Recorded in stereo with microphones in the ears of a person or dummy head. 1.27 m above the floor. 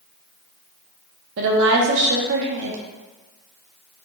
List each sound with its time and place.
1.4 s a woman speaking: 65° right (ahead or behind), 0.8 m